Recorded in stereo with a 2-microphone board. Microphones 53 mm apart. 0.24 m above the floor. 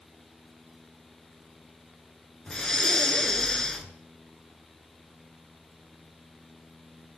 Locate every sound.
2.5 s breathing: 15° left (ahead or behind), 1.1 m